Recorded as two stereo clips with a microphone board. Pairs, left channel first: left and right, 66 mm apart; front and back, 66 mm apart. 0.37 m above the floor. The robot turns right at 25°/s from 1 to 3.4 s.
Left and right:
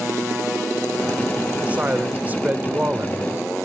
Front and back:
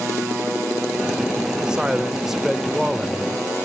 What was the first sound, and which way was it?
A man speaking, 125° right.